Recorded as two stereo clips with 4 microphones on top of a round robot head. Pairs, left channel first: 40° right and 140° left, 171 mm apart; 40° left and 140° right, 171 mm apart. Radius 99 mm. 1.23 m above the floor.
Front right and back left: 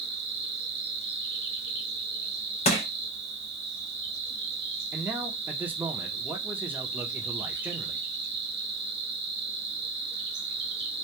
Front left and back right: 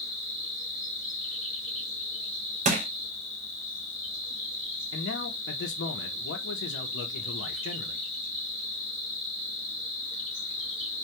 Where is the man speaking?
60° left, 0.5 m.